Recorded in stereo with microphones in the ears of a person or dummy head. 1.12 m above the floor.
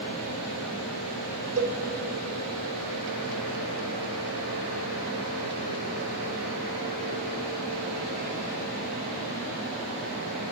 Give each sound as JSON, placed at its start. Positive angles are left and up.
{"t": 1.6, "sound": "a cowbell", "side_deg": -70, "distance_m": 1.1}